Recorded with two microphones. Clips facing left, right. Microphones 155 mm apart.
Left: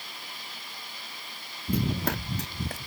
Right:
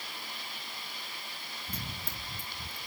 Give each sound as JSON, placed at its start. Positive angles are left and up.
{"t": 1.7, "sound": "running footsteps", "side_deg": 65}